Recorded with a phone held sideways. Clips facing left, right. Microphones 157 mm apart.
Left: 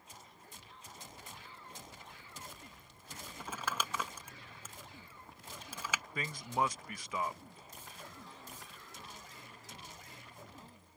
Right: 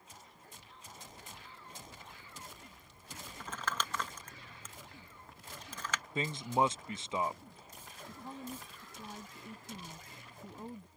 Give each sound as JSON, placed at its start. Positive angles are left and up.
{"t": 3.4, "sound": "crumpling", "side_deg": 10}
{"t": 6.2, "sound": "a man speaking", "side_deg": -25}
{"t": 8.1, "sound": "a woman speaking", "side_deg": -55}